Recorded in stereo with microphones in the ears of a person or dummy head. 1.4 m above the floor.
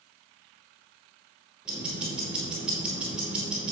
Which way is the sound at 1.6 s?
5° right (ahead or behind).